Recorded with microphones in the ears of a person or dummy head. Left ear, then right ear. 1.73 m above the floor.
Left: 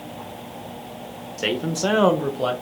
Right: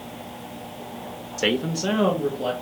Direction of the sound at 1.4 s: 30° right (ahead or behind).